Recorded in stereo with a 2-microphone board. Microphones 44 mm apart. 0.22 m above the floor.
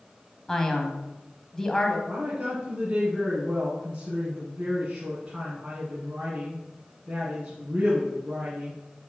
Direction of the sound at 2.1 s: 25° right (ahead or behind).